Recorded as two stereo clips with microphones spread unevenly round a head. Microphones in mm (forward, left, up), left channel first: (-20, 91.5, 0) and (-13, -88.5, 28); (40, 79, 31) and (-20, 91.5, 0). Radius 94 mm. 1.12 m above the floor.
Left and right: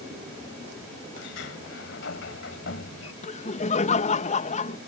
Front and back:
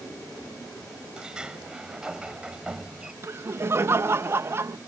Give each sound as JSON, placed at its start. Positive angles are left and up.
{"t": 1.2, "sound": "a sliding door", "azimuth_deg": 70}
{"t": 3.2, "sound": "laughter", "azimuth_deg": 140}